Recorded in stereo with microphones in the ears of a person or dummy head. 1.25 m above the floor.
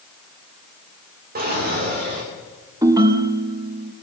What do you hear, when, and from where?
1.4 s a drawer: 45° right (ahead or behind), 2.5 m
2.8 s a ringtone: 20° right (ahead or behind), 0.7 m